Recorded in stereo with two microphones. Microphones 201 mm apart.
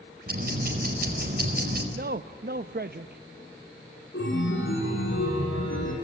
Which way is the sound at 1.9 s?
50° right (ahead or behind).